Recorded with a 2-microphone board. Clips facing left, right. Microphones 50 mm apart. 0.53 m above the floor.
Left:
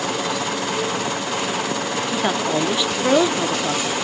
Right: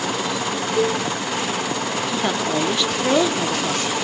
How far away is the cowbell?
About 1.3 m.